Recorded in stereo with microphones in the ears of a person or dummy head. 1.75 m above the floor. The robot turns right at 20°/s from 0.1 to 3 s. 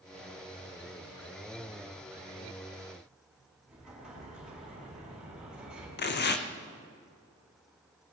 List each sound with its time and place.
3.7 s an explosion: 5° right (ahead or behind), 5 m
6.0 s tearing paper: 50° left (ahead or behind), 0.8 m